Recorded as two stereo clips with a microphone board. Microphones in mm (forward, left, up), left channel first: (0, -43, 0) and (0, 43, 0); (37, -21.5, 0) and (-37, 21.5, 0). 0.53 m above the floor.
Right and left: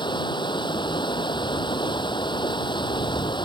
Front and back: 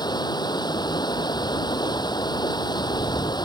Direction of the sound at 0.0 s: 65° right.